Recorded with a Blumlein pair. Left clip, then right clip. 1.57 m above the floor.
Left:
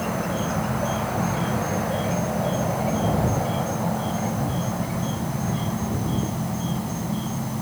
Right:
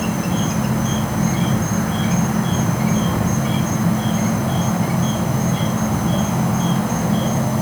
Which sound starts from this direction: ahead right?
An insect, at 0.0 s.